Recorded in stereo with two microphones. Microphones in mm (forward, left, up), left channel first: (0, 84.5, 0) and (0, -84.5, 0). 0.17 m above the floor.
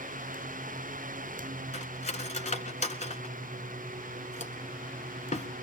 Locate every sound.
1.7 s cutlery clinking: 45° left (ahead or behind), 1.0 m